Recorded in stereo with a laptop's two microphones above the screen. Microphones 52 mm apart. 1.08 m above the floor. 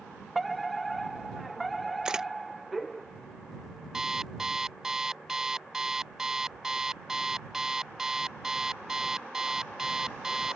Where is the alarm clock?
10° right (ahead or behind).